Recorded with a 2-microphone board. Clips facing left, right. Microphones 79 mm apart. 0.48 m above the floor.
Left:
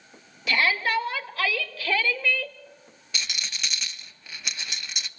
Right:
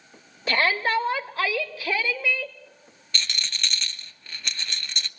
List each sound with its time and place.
0.5 s a shout: 40° right (ahead or behind), 1.9 m; by 2.5 s 5° right (ahead or behind), 1.5 m
3.1 s a rattle: 10° left (ahead or behind), 0.7 m